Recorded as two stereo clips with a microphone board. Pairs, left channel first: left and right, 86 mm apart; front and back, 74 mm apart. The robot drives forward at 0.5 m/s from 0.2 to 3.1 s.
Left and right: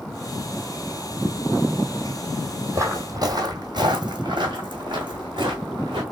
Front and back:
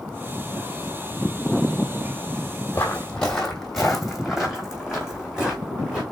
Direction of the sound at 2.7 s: 55° right.